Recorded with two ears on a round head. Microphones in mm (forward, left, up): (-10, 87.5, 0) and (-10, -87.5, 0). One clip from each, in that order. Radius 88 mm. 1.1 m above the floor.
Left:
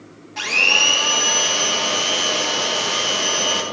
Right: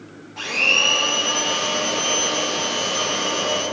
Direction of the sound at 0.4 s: 45° left (ahead or behind).